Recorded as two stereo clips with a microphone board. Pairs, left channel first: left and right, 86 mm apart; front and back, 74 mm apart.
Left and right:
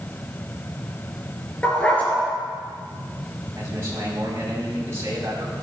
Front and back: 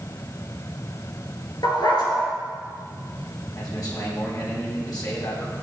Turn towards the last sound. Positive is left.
turn(degrees=-35)